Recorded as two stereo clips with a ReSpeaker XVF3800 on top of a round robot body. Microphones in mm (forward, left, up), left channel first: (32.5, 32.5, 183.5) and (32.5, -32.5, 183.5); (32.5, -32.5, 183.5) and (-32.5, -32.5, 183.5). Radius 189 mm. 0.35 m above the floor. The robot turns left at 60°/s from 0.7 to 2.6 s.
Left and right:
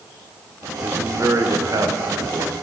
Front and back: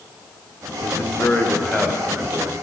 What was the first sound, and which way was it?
A man speaking, 30° right.